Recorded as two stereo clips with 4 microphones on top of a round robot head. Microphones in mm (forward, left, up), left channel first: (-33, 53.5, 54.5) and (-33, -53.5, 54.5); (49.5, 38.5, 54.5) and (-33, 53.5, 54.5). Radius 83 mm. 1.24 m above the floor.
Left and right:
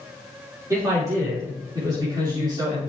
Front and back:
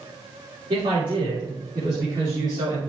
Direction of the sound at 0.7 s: 150° right.